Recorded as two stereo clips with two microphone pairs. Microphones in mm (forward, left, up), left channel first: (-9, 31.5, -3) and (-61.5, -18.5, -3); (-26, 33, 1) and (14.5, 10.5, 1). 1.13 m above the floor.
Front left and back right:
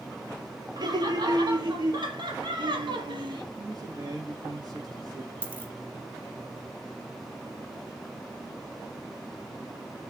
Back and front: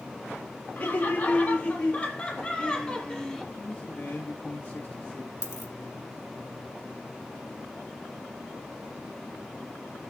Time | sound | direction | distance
0.8 | laughter | 165° right | 3 m
3.6 | a man speaking | 165° right | 2 m
5.4 | a dropped coin | 160° left | 3.5 m